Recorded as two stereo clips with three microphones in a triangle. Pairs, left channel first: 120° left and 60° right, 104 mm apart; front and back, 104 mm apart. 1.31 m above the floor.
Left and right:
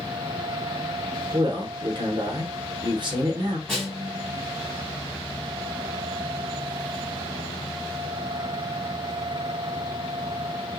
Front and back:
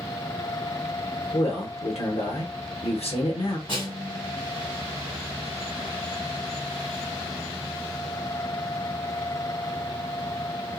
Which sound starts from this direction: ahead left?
A snare drum, at 3.7 s.